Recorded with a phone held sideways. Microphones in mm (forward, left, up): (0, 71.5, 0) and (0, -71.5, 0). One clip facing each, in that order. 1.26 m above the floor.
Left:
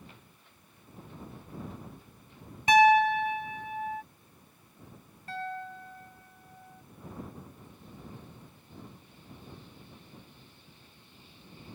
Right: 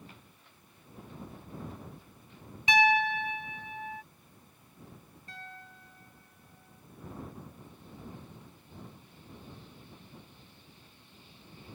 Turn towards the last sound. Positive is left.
turn(degrees=70)  # may be behind; listen again after turning